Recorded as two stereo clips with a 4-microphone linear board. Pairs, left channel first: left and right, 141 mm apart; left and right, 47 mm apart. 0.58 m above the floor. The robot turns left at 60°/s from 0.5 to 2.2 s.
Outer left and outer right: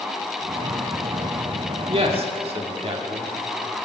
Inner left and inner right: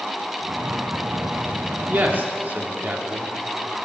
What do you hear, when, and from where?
1.9 s a man speaking: 45° right (ahead or behind), 1.3 m